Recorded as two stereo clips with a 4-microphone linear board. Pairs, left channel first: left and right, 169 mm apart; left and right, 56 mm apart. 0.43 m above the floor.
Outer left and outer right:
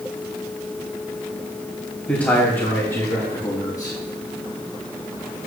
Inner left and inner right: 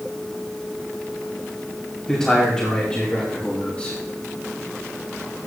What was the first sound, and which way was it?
A man speaking, 10° left (ahead or behind).